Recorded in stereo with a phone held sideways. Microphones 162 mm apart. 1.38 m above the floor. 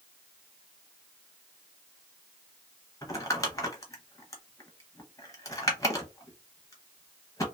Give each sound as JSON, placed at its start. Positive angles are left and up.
{"t": 3.0, "sound": "crumpling", "side_deg": 20, "distance_m": 0.7}